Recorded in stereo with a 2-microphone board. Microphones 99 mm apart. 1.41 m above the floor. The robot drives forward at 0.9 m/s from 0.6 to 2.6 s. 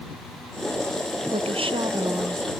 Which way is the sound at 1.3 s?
85° right.